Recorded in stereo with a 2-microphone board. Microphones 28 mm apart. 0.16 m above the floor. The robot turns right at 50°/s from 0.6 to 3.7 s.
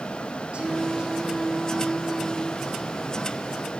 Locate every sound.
0.5 s singing: 60° right, 4 m; by 3.2 s 70° left, 4 m